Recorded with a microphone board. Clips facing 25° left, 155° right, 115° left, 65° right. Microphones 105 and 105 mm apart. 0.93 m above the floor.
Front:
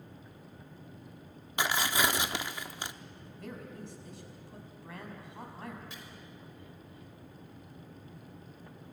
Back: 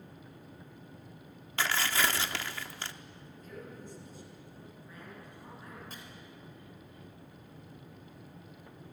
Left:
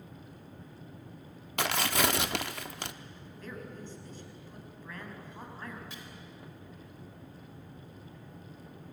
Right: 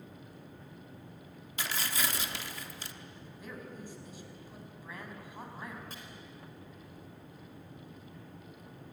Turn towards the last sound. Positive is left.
turn(degrees=-115)